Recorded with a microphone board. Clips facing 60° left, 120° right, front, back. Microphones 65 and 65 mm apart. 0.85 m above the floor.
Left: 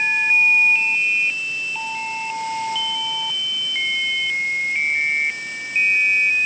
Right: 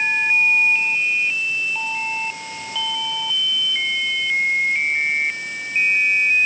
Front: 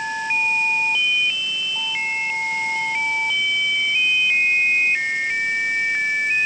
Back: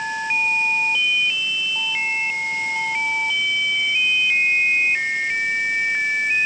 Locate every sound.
Only background noise.